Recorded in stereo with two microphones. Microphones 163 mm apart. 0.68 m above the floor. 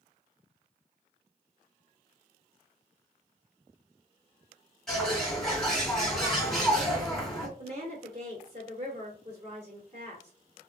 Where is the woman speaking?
35° right (ahead or behind), 2 m.